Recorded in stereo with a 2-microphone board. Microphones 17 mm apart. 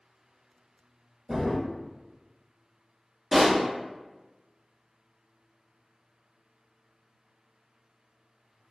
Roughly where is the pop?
Right.